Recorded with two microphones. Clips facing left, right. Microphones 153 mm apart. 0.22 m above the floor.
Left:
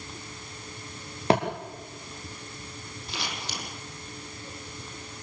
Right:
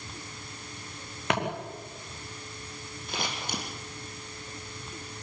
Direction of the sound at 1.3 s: 35° left (ahead or behind).